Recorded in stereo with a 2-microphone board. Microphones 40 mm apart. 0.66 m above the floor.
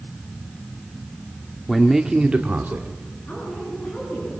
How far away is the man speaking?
About 1.4 m.